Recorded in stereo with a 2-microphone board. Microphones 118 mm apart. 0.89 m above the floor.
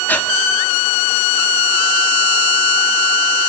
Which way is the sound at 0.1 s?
15° left (ahead or behind).